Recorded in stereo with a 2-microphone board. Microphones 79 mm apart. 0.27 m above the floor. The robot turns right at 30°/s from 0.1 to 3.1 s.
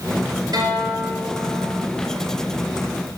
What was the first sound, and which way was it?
A guitar, 120° right.